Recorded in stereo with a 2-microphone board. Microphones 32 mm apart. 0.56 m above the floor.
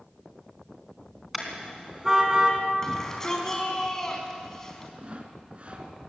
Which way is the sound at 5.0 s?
40° right (ahead or behind).